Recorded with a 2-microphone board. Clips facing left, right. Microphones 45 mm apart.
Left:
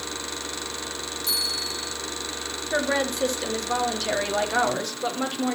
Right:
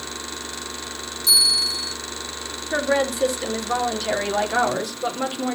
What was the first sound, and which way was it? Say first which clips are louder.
A bell: right 9 dB; 45° left (ahead or behind).